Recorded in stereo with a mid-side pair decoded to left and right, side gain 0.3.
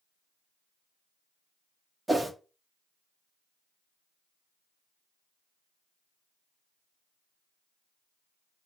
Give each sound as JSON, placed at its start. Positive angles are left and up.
{"t": 2.1, "sound": "a whoosh", "azimuth_deg": -25, "distance_m": 0.8}